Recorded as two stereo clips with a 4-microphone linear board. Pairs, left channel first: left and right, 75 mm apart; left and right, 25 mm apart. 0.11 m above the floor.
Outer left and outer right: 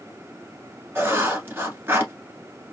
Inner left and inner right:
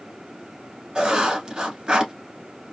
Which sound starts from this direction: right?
Writing, at 0.9 s.